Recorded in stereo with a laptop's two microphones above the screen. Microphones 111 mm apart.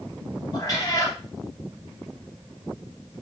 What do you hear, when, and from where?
0.5 s a cat meowing: 35° left (ahead or behind), 4.5 m